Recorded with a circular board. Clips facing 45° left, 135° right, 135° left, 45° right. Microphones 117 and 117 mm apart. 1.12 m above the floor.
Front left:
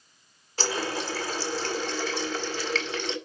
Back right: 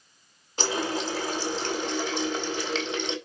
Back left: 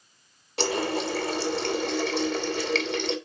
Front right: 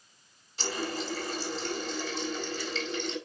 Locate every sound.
0.6 s a running tap: 155° left, 1.5 m